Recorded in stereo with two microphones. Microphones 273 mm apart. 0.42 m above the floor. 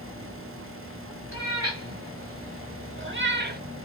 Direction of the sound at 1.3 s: 50° right (ahead or behind).